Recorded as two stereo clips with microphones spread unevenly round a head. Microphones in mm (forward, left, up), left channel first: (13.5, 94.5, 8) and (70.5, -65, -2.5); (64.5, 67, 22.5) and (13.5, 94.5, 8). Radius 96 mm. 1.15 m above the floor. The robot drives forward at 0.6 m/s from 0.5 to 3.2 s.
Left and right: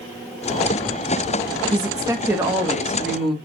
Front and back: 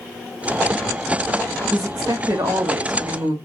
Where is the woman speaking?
140° right, 0.9 m; by 3.3 s 160° right, 1.6 m.